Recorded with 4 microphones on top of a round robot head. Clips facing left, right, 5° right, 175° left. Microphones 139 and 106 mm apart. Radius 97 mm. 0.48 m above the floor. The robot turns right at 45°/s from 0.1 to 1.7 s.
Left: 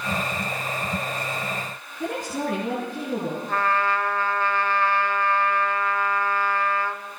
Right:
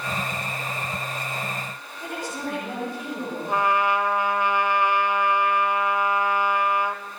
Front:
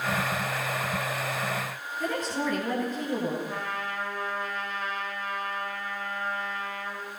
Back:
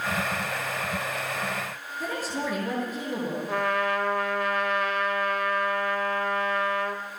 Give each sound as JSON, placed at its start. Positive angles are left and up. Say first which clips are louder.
{"t": 2.0, "sound": "a woman speaking", "louder": "left 4 dB, front 1 dB", "azimuth_deg": 90, "distance_m": 9.5}
{"t": 3.5, "sound": "a trumpet", "louder": "right 3 dB, back 8 dB", "azimuth_deg": -165, "distance_m": 1.8}